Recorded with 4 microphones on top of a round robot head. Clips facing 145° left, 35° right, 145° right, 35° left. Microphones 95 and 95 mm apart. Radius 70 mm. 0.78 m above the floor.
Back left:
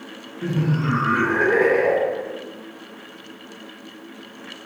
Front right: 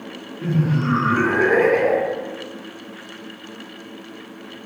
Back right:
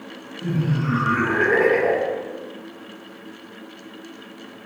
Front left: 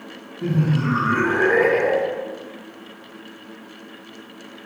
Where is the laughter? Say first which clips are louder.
Front right 2 dB, front left 3 dB; 55° left, 0.9 m; by 2.3 s 70° right, 1.3 m.